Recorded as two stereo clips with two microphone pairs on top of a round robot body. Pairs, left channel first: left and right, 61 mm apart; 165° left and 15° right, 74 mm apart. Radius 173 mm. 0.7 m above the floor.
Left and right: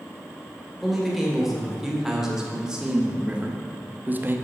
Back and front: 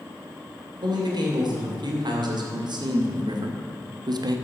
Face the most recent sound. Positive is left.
turn(degrees=-30)